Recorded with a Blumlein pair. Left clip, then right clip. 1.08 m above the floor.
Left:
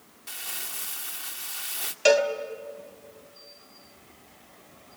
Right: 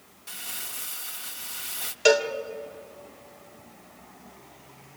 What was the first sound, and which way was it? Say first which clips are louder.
Crumpling: left 1 dB; 5° left.